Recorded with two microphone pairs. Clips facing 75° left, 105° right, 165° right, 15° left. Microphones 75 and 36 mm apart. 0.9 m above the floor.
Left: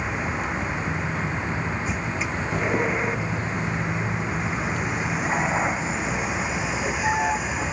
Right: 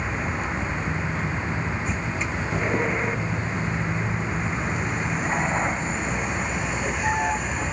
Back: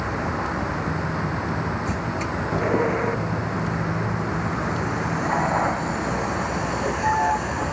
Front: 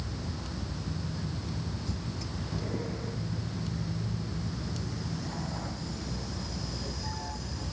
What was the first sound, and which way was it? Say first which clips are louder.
A vehicle: left 1 dB, back 14 dB; 160° left.